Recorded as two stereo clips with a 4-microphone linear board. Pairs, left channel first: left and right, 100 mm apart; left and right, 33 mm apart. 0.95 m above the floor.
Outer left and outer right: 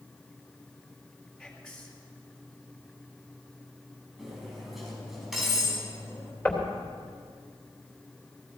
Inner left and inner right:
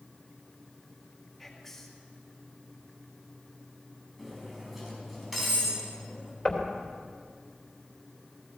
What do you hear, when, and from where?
1.4 s whispering: 5° left (ahead or behind), 2.5 m
4.2 s cutlery clinking: centre (ahead or behind), 5 m
6.5 s knocking: 15° left (ahead or behind), 2.5 m